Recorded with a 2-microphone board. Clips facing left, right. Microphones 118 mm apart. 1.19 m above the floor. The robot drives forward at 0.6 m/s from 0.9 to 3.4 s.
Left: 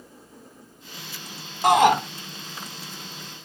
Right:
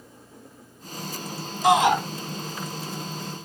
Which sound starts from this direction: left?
A shout, at 1.6 s.